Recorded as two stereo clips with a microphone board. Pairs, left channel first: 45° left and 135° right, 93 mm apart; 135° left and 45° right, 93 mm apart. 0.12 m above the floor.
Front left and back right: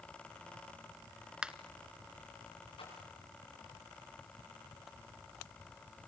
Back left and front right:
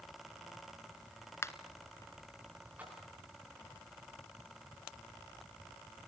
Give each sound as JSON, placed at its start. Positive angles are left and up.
{"t": 1.4, "sound": "a finger snap", "azimuth_deg": 155, "distance_m": 1.1}
{"t": 2.8, "sound": "a splash", "azimuth_deg": 30, "distance_m": 9.5}